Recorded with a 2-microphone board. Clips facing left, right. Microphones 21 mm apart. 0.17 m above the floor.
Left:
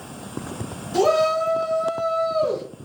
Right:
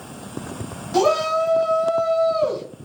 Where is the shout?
35° right (ahead or behind), 1.7 m.